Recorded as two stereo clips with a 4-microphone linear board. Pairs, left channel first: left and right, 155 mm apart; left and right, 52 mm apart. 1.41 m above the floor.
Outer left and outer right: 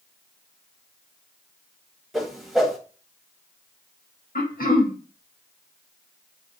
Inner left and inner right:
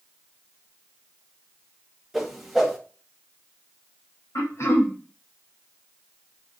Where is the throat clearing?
70° left (ahead or behind), 1.9 m.